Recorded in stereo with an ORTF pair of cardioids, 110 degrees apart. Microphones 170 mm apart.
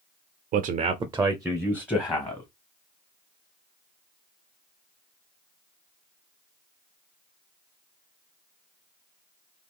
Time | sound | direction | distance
0.5 | a man speaking | 60° right | 0.5 m